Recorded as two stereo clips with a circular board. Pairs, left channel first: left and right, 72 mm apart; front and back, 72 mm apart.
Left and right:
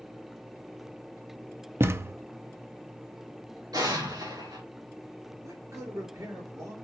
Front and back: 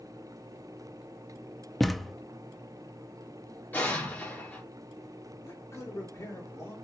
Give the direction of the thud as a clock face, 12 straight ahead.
3 o'clock.